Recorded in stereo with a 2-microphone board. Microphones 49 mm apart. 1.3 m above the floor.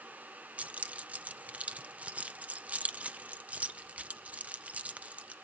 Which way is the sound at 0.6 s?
30° right (ahead or behind).